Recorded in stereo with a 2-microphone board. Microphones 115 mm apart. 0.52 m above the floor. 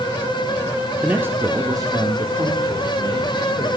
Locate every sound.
1.0 s a man speaking: 15° right (ahead or behind), 0.7 m; by 3.8 s 40° right (ahead or behind), 1.7 m